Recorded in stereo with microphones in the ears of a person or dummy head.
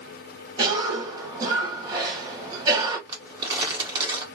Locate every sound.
0.6 s a cough: 20° right (ahead or behind), 1.5 m
3.1 s crumpling: 25° right (ahead or behind), 1.7 m